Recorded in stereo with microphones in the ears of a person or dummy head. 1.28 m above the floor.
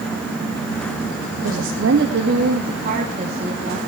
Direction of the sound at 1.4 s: 85° right.